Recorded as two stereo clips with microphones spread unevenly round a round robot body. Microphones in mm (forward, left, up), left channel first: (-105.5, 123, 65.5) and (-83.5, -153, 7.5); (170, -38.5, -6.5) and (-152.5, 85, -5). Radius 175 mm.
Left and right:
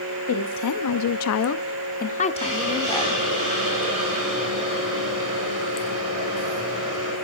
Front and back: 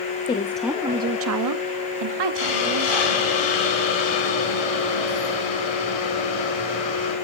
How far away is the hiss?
About 7 m.